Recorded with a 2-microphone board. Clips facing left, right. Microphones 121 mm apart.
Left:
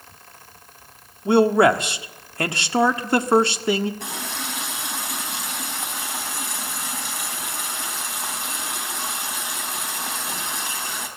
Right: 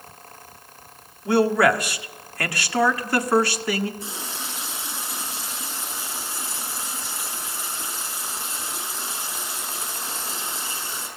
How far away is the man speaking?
About 1.6 m.